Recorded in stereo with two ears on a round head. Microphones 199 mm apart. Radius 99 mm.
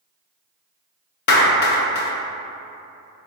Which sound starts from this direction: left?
A clap, at 1.3 s.